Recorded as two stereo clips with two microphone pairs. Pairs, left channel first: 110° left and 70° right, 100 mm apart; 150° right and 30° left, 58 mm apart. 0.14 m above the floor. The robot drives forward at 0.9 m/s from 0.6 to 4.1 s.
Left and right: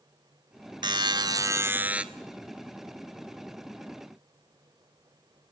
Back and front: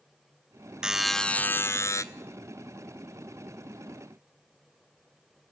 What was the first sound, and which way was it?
A buzzer, 45° right.